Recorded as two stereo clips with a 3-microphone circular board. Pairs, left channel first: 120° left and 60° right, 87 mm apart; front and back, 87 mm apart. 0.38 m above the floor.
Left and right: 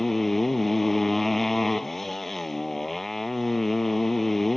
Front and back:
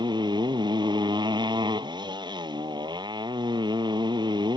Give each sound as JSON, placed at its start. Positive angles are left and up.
{"t": 0.0, "sound": "a motorcycle", "azimuth_deg": -150}